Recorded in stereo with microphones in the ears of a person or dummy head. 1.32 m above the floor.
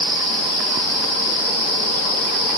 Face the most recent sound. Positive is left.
No sound to turn to.